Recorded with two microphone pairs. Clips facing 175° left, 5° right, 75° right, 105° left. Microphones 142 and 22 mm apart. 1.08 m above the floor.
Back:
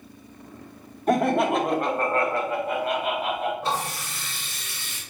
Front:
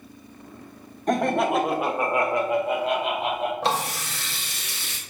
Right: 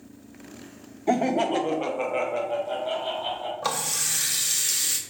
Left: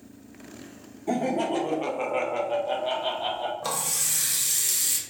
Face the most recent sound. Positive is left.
turn(degrees=-10)